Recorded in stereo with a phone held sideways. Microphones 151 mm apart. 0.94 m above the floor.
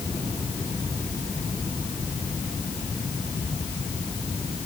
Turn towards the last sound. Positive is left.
No sound to turn to.